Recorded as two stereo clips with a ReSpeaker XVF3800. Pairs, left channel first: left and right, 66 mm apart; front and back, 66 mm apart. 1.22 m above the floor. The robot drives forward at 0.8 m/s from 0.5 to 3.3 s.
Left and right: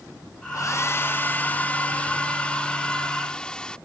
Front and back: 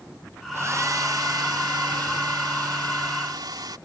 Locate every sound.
0.5 s a hair dryer: 130° left; by 3.8 s 170° left